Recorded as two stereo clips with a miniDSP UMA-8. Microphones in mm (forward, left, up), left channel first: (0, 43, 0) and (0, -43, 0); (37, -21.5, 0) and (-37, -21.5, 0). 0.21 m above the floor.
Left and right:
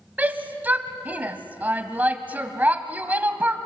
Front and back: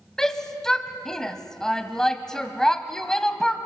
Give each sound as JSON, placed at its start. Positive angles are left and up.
{"t": 0.2, "sound": "a shout", "azimuth_deg": -70, "distance_m": 0.9}